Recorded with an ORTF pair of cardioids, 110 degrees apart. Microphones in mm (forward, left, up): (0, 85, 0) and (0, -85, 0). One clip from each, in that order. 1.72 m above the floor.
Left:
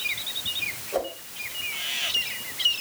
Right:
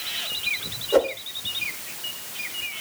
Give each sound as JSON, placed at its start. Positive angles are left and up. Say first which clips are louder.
{"t": 0.9, "sound": "a whoosh", "louder": "right 11 dB", "azimuth_deg": -65, "distance_m": 1.6}